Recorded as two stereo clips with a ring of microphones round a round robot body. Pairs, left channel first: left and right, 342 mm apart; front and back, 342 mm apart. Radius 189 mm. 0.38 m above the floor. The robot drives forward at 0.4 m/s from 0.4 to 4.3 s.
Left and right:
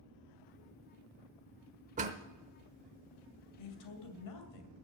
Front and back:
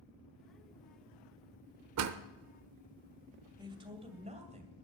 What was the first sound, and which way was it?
A door slam, 155° right.